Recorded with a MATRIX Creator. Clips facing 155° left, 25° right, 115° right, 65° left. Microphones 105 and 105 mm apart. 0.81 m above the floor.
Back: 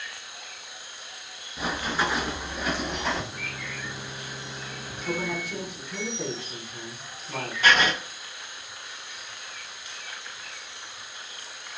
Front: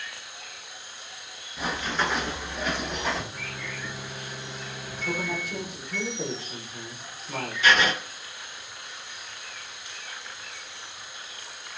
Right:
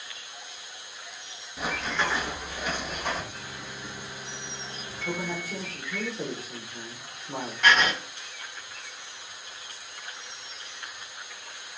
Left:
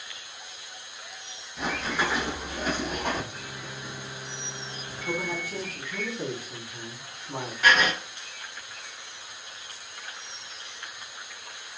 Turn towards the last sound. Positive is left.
turn(degrees=150)